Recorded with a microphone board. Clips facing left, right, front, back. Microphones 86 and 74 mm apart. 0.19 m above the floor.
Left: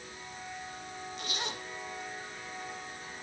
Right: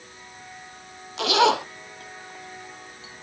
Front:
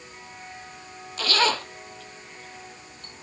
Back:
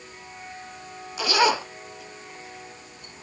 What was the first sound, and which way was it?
A zipper, 105° right.